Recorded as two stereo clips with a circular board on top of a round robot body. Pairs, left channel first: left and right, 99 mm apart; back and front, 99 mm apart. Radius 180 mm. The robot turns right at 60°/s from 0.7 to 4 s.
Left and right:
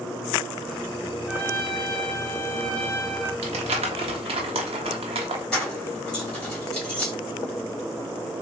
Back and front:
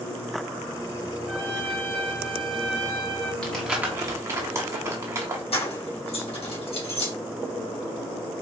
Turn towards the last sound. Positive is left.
turn(degrees=170)